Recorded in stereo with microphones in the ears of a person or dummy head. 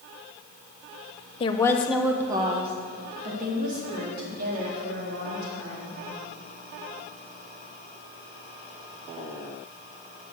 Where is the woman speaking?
30° left (ahead or behind), 0.9 m; by 5.9 s 55° right (ahead or behind), 4.5 m.